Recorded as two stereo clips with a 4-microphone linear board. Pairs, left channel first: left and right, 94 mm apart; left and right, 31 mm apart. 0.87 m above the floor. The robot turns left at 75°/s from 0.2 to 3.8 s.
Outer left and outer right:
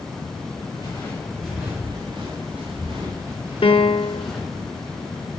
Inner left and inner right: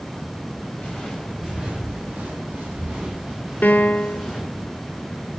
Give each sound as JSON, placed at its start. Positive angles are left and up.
{"t": 0.8, "sound": "footsteps", "side_deg": 55, "distance_m": 6.0}
{"t": 3.6, "sound": "a piano", "side_deg": 70, "distance_m": 0.9}